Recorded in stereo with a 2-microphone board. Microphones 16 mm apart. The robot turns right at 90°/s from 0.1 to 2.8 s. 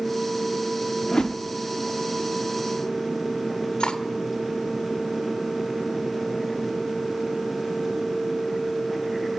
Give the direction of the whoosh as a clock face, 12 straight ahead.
10 o'clock.